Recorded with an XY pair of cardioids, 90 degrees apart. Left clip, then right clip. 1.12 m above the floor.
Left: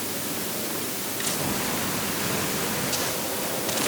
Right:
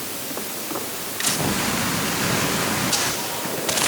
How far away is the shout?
No shout in this recording.